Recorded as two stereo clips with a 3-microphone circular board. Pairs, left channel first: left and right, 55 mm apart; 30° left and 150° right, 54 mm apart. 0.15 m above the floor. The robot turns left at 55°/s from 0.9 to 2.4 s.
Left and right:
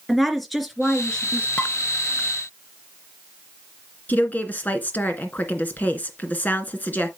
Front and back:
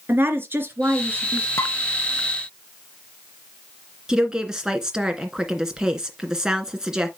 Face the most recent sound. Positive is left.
turn(degrees=140)